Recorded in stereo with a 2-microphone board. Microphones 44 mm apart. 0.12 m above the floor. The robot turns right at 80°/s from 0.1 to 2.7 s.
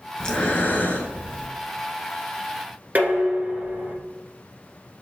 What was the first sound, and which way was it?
Breathing, 30° left.